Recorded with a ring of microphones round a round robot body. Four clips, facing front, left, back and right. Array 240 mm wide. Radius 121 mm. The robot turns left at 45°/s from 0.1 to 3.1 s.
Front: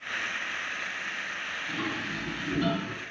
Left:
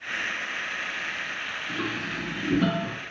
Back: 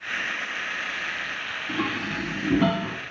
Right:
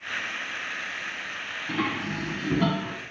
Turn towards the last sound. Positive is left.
turn(degrees=-175)